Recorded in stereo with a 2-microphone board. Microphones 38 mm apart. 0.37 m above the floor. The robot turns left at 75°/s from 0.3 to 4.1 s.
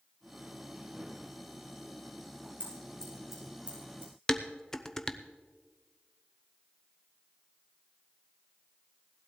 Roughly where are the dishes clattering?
Centre.